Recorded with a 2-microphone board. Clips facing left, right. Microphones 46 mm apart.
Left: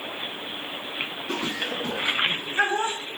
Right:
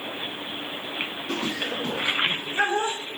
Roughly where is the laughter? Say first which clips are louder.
Even; centre.